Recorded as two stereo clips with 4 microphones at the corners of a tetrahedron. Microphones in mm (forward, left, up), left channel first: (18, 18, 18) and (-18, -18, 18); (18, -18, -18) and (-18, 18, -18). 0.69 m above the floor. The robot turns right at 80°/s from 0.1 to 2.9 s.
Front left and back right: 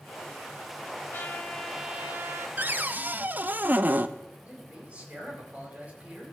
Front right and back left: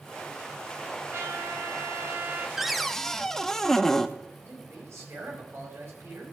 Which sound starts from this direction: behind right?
A cupboard door, at 2.6 s.